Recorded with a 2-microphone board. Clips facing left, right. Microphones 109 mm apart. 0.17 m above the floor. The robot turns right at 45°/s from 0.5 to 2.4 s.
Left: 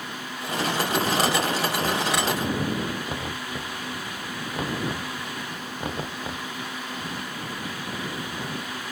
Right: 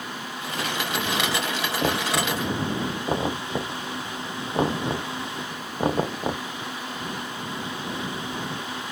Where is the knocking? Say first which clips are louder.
Even; 60° right (ahead or behind); by 6.5 s 35° right (ahead or behind).